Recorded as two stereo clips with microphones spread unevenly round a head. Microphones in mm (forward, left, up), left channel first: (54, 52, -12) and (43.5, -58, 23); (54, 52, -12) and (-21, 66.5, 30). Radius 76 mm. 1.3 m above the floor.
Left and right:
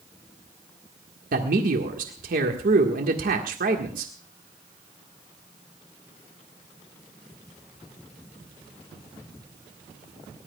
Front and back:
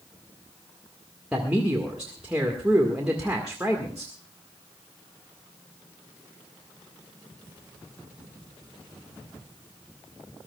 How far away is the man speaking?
About 1.7 m.